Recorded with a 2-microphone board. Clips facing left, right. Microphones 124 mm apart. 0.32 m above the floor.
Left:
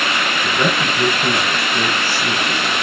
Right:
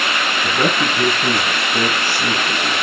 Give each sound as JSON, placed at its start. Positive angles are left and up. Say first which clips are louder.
{"t": 0.4, "sound": "a man speaking", "louder": "right 1 dB", "side_deg": -35, "distance_m": 3.0}